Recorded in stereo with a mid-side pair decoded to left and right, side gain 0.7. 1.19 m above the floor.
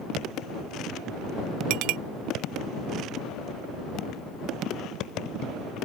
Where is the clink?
70° right.